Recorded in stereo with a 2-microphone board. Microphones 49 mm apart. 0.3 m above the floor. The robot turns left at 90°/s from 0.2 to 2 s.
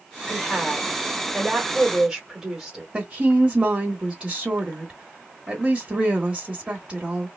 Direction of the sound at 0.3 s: 5° right (ahead or behind).